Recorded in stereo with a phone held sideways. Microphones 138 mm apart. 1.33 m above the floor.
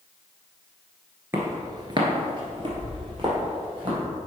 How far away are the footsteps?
About 1.4 m.